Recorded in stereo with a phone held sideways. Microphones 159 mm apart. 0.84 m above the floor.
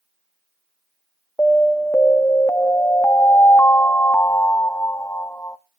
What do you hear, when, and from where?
1.4 s an alarm: 15° left (ahead or behind), 0.8 m